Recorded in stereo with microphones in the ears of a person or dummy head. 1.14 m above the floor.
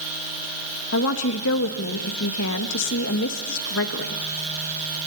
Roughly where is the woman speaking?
Left.